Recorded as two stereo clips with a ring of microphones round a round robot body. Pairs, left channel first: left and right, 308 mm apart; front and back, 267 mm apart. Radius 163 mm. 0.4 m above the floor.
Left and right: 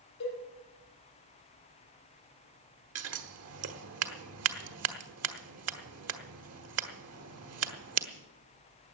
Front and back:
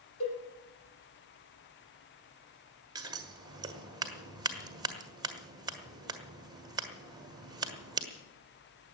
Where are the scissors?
110° right, 1.4 m.